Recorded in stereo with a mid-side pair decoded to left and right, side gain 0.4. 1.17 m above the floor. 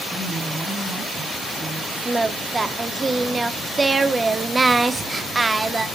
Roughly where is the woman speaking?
Ahead.